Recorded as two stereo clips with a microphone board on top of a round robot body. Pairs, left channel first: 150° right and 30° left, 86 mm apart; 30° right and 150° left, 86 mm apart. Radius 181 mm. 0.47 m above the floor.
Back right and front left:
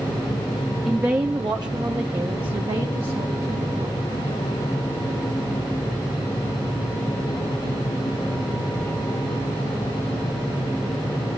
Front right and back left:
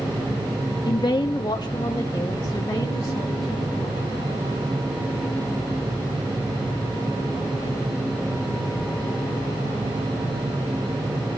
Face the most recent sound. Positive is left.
turn(degrees=25)